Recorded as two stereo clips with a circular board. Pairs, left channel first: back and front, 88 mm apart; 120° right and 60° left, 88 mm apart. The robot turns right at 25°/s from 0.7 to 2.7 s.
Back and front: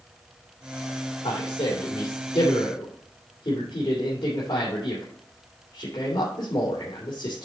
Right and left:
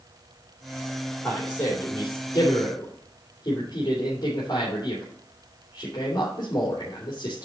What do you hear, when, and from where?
1.2 s a man speaking: 165° left, 2.5 m; by 7.5 s 160° right, 2.5 m